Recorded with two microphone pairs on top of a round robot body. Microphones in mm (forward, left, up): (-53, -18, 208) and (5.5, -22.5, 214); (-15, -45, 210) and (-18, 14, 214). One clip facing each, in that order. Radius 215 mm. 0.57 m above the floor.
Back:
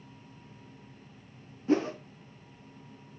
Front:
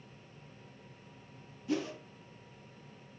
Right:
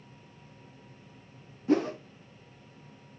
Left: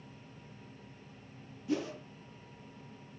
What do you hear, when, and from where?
1.7 s a whoosh: 130° right, 0.7 m